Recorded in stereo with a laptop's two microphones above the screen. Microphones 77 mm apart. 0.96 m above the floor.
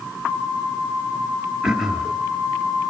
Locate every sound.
1.6 s throat clearing: 5° right (ahead or behind), 0.7 m